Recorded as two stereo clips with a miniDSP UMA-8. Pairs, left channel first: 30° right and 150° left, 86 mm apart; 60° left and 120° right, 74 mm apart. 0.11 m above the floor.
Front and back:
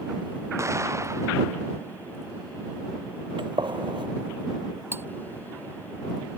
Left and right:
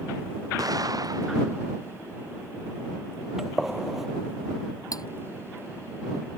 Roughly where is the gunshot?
Behind left.